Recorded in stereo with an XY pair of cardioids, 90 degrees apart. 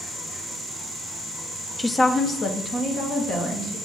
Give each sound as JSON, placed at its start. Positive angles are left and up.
{"t": 1.8, "sound": "a woman speaking", "azimuth_deg": 20, "distance_m": 0.6}